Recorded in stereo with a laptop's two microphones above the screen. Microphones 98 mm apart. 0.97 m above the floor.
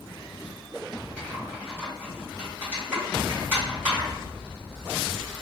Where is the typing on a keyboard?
20° right (ahead or behind), 1.5 m.